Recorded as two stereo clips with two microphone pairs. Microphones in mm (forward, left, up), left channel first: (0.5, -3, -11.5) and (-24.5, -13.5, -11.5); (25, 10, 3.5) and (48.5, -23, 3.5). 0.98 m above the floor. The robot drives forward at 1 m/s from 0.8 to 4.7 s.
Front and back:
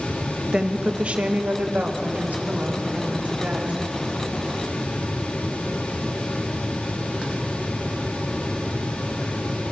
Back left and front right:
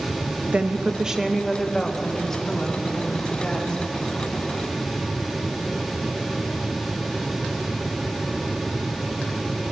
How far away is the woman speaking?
About 0.8 m.